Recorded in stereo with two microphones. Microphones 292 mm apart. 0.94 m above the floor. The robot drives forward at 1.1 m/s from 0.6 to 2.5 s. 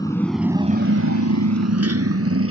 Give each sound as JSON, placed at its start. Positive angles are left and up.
{"t": 0.0, "sound": "a motorcycle", "side_deg": 15}